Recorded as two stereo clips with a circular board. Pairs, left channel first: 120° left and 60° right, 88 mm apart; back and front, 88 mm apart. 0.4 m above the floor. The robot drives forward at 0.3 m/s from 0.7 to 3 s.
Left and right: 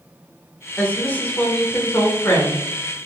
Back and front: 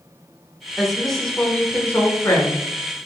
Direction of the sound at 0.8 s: 80° left.